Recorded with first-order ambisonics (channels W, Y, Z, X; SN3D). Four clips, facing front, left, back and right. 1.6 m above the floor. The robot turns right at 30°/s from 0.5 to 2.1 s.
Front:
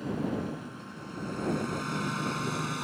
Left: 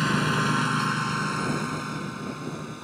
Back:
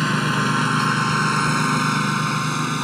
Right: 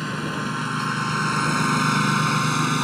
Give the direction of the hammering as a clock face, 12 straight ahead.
I don't hear hammering.